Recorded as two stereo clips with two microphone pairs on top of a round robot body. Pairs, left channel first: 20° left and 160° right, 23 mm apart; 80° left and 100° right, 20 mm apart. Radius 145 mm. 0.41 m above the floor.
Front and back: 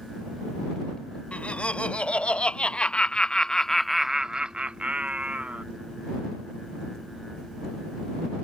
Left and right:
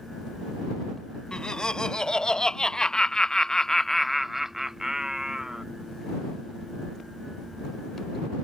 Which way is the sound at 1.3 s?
35° left.